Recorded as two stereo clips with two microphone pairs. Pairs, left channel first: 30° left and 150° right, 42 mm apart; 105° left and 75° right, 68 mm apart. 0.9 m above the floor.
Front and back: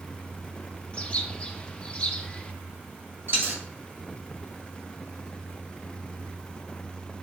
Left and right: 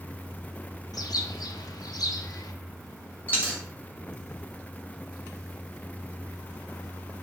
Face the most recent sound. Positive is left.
turn(degrees=175)